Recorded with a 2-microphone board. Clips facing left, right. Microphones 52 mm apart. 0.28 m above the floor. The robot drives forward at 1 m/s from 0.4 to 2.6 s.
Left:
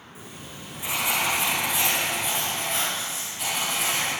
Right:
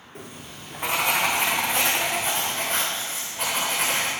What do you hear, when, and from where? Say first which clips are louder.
0.1 s writing: right 2 dB; 55° right (ahead or behind), 3.5 m; by 4.1 s 35° right (ahead or behind), 5 m